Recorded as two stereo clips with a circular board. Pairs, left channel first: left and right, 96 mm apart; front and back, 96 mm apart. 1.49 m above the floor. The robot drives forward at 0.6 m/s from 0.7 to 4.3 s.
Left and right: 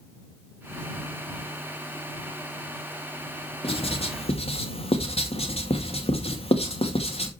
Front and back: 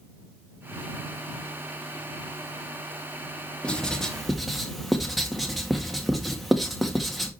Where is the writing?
80° left, 2 m; by 7.3 s 90° left, 2 m.